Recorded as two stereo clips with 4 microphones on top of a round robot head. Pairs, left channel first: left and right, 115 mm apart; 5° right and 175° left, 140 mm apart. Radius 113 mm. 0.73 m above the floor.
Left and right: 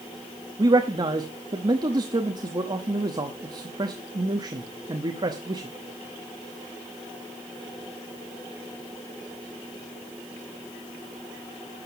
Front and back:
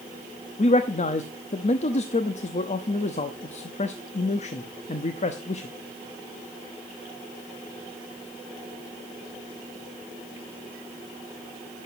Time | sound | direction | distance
0.6 | a man speaking | 40° right | 0.9 m